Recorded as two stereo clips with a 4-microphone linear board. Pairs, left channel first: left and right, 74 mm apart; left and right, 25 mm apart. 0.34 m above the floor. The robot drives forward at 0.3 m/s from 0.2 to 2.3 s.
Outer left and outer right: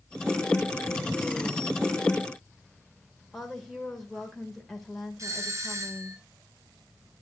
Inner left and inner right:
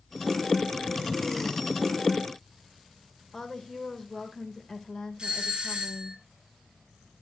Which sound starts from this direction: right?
A doorbell, at 5.2 s.